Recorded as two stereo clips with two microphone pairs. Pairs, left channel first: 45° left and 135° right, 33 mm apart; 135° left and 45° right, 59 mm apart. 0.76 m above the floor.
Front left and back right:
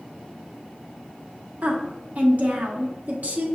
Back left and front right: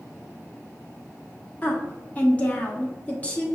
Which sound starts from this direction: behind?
A woman speaking, at 1.6 s.